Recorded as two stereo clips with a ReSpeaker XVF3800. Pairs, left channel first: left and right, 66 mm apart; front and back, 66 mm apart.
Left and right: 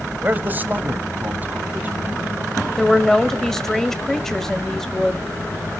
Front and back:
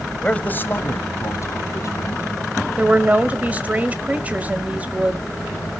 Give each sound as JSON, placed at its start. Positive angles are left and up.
{"t": 0.2, "sound": "a man speaking", "azimuth_deg": -60, "distance_m": 1.0}
{"t": 2.8, "sound": "a woman speaking", "azimuth_deg": 165, "distance_m": 1.4}